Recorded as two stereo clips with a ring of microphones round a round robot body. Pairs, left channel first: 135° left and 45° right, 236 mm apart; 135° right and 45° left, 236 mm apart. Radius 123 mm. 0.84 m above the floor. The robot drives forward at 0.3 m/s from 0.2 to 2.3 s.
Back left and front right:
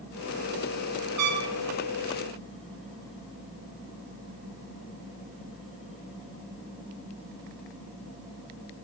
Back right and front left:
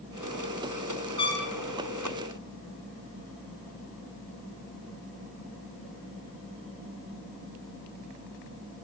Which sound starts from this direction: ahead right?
A trumpet, at 1.2 s.